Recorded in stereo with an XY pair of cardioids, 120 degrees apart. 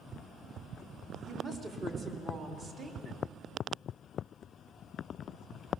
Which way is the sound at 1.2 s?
50° right.